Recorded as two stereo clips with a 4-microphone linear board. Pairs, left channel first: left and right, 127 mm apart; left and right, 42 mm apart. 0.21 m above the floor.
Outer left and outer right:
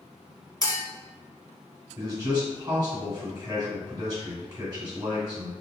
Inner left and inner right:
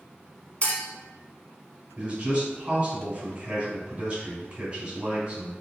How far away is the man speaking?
About 1.8 m.